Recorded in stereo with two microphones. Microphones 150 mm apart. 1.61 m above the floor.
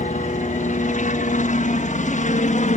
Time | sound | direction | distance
0.0 | a helicopter | 65° left (ahead or behind) | ?